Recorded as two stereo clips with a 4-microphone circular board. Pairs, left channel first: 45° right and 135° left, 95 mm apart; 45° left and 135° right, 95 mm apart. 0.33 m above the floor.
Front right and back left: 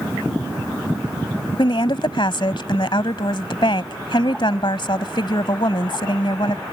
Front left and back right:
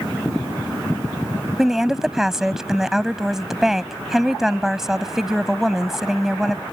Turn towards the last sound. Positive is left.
turn(degrees=-50)